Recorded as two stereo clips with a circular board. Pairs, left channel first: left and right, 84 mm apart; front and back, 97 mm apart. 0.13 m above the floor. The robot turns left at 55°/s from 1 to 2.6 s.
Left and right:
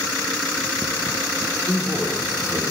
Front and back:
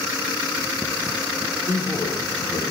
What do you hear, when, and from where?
1.6 s a man speaking: 40° left, 6 m; by 2.6 s 10° right, 6 m